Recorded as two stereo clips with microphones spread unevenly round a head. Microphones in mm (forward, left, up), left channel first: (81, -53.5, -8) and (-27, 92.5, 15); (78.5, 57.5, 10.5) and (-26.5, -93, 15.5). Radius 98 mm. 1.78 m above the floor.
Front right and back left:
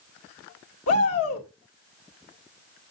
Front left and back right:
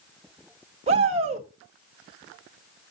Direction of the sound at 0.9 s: 70° right.